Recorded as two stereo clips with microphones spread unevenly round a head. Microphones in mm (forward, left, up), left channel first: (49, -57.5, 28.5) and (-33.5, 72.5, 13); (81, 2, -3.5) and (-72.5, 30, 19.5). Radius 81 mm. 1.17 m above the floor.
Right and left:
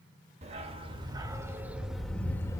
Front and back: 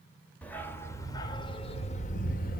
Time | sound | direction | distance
0.4 | a dog barking | 75° left | 1.3 m